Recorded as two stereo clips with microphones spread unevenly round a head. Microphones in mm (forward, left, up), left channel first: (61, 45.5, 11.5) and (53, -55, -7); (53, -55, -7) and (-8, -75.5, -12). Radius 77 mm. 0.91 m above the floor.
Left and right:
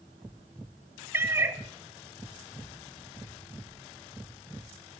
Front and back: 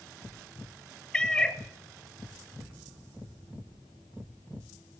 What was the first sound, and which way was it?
A cat meowing, 35° right.